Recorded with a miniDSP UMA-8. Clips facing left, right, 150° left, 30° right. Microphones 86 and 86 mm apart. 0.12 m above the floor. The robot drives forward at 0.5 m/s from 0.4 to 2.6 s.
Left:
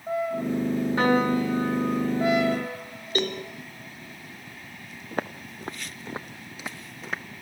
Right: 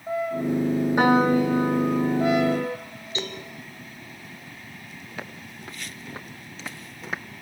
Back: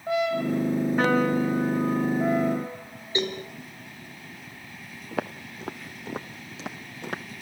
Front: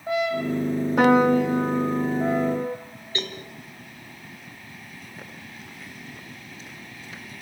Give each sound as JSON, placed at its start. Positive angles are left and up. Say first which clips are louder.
{"t": 1.0, "sound": "a piano", "louder": "right 4 dB, front 7 dB", "azimuth_deg": -15, "distance_m": 5.0}
{"t": 3.1, "sound": "a cowbell", "louder": "left 6 dB, back 5 dB", "azimuth_deg": 80, "distance_m": 2.5}
{"t": 5.1, "sound": "footsteps", "louder": "left 8 dB, back 15 dB", "azimuth_deg": 135, "distance_m": 1.6}